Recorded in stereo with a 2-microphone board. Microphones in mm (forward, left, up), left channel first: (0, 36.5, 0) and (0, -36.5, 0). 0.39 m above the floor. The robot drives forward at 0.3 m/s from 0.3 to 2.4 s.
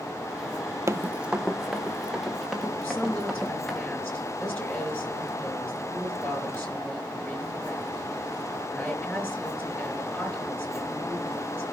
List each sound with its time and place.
0.9 s running footsteps: 40° right (ahead or behind), 0.5 m; by 3.8 s 5° left (ahead or behind), 5 m
2.8 s a woman speaking: 15° left (ahead or behind), 5.5 m